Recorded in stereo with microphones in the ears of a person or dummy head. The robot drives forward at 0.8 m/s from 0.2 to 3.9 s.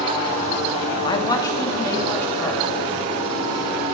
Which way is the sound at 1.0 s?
25° left (ahead or behind).